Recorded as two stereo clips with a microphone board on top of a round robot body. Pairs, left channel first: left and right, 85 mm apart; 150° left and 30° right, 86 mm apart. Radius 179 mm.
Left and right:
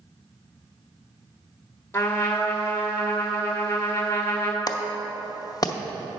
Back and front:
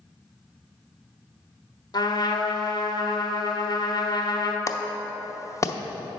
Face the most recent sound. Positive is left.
turn(degrees=110)